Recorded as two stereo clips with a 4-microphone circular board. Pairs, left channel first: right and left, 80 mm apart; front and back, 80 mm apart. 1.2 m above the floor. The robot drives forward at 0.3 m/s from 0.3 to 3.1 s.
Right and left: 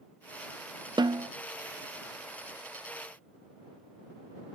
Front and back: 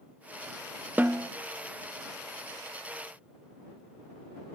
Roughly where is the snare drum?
Left.